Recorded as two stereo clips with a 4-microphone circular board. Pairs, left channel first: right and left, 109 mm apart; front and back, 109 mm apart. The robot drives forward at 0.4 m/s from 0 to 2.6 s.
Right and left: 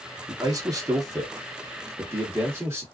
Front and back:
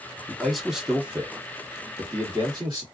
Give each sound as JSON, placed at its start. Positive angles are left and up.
{"t": 0.3, "sound": "a man speaking", "azimuth_deg": 75, "distance_m": 0.9}